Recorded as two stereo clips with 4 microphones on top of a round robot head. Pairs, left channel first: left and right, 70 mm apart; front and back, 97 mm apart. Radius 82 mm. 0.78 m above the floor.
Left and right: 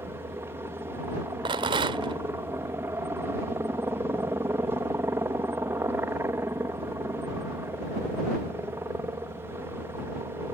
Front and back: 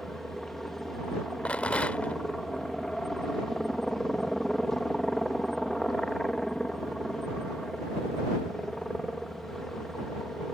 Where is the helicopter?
85° right.